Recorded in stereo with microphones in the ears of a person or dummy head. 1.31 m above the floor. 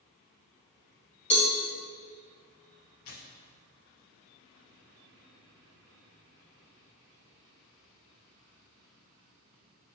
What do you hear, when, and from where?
1.3 s a cowbell: 35° left (ahead or behind), 1.8 m
3.0 s tearing paper: 50° left (ahead or behind), 0.9 m